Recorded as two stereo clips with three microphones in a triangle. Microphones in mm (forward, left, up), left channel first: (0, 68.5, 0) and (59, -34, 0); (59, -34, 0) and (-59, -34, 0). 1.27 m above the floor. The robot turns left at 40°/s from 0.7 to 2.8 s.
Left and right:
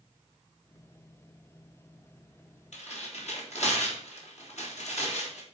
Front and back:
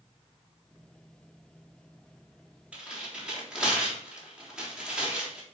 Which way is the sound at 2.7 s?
100° left.